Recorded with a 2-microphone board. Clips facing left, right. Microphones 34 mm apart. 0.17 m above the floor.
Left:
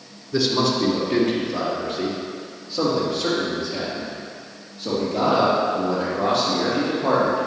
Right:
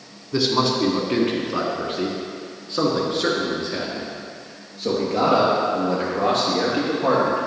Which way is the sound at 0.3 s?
25° right (ahead or behind).